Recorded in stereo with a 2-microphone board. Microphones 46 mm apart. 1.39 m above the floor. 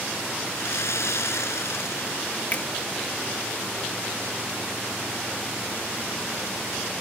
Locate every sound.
0.6 s sawing: 80° left
2.5 s a finger snap: 40° left (ahead or behind)